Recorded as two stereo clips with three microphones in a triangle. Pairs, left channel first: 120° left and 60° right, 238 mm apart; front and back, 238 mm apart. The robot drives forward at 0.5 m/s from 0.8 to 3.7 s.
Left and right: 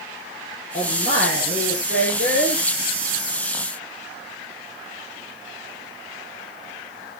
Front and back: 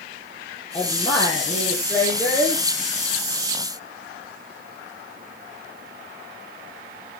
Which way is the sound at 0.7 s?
65° left.